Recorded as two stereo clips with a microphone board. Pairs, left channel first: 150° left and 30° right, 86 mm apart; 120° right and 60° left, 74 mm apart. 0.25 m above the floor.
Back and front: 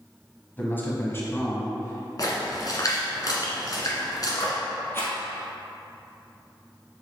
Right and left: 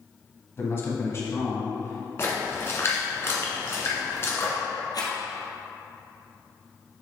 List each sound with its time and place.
0.6 s a man speaking: 150° right, 1.4 m; by 2.1 s 165° right, 2 m
2.2 s a splash: 170° right, 1.6 m
4.9 s a rattle: 150° right, 1.9 m